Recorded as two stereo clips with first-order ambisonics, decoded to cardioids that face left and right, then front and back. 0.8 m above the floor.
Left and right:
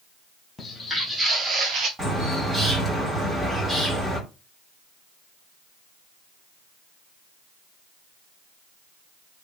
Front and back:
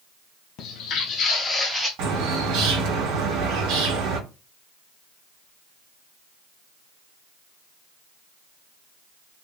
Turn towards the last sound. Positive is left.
turn(degrees=-175)